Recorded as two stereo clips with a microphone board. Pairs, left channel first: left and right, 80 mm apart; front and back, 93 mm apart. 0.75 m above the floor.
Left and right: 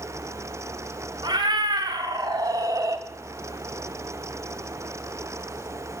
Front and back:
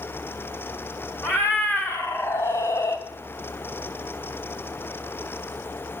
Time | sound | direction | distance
1.2 | a cat meowing | 65° right | 2.0 m